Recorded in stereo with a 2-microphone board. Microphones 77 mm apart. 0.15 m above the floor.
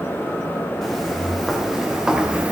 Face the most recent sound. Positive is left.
turn(degrees=-15)  # may be behind; listen again after turning